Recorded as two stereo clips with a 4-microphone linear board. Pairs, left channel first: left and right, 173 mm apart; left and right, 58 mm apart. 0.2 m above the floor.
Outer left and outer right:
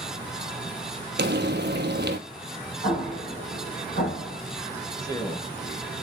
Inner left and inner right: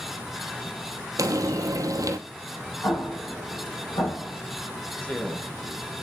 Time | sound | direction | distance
1.2 | frying | 85° right | 0.9 m
2.8 | an explosion | 75° left (ahead or behind) | 6 m
5.0 | a man speaking | 20° left (ahead or behind) | 1.4 m